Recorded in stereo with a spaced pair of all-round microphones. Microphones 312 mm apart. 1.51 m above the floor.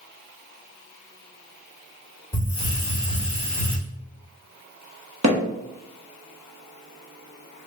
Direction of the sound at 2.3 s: 10° left (ahead or behind).